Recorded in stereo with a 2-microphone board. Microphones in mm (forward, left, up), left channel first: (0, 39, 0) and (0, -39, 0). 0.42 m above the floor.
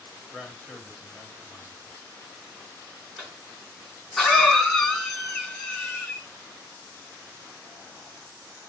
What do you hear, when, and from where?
0.3 s a man speaking: 5° right (ahead or behind), 1.5 m
3.2 s a cough: 5° left (ahead or behind), 5.5 m